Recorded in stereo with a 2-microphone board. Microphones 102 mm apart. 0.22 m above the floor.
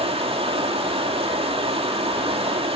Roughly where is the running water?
Right.